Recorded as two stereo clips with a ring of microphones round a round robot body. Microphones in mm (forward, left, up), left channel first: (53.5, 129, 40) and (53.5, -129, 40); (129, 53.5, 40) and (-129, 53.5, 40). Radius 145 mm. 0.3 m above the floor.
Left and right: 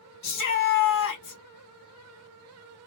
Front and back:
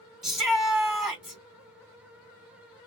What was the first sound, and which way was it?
A shout, 90° left.